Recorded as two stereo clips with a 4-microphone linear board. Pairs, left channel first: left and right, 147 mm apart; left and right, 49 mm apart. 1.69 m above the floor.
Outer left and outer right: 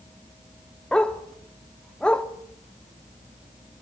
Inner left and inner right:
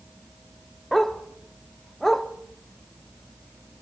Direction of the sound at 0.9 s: 5° left (ahead or behind).